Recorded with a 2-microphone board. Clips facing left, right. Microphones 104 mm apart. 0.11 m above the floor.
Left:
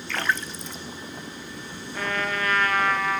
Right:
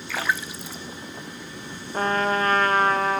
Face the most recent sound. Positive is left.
turn(degrees=-40)  # may be behind; listen again after turning